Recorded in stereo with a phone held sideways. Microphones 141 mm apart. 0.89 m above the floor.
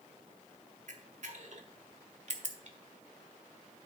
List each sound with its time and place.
0.9 s a camera shutter: 55° right (ahead or behind), 1.3 m